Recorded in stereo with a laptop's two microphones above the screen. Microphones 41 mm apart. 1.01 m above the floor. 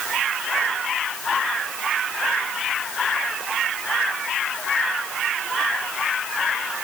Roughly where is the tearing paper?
I don't hear tearing paper.